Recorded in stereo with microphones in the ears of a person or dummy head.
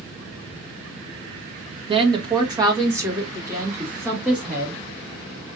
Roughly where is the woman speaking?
Right.